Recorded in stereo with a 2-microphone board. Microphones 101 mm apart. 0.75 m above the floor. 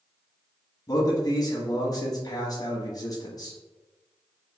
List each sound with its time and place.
0.9 s a man speaking: 35° left (ahead or behind), 1.0 m